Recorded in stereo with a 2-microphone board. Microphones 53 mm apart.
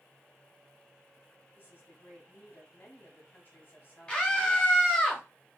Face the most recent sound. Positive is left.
turn(degrees=20)  # may be behind; listen again after turning